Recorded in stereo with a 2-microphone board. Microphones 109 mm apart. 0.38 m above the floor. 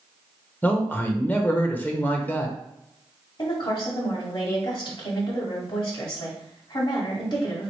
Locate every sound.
0.6 s a man speaking: 20° left (ahead or behind), 0.9 m
3.4 s a woman speaking: 45° left (ahead or behind), 1.9 m